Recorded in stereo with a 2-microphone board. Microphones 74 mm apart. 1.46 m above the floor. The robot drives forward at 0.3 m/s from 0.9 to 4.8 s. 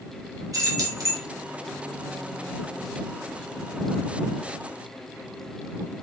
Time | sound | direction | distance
0.5 | keys jangling | 50° right (ahead or behind) | 0.9 m